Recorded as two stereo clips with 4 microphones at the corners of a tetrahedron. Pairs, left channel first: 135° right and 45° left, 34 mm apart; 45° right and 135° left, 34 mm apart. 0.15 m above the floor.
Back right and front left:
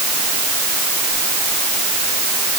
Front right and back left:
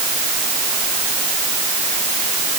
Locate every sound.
Only background noise.